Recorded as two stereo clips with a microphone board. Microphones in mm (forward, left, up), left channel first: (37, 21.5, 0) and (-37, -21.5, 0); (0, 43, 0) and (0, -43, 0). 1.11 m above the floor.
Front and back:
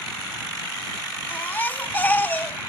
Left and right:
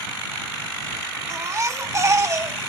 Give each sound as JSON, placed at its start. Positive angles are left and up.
{"t": 1.3, "sound": "a baby crying", "azimuth_deg": -35}